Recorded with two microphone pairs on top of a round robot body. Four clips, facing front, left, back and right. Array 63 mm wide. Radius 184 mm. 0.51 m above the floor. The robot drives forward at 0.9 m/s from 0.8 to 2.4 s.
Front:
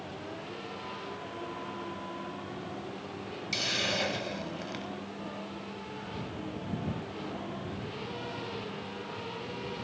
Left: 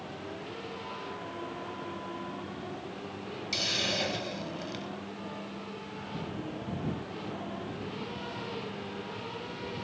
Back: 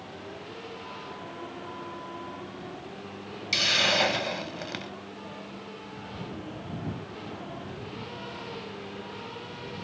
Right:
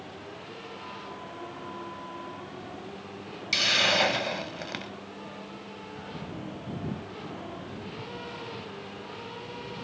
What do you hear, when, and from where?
3.5 s a hiss: 125° right